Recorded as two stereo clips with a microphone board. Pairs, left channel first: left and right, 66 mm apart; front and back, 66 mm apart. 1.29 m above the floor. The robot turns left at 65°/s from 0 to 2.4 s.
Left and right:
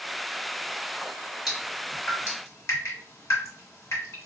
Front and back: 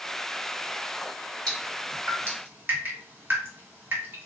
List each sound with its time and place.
1.5 s dripping: 170° right, 1.5 m; by 4.3 s 130° left, 1.5 m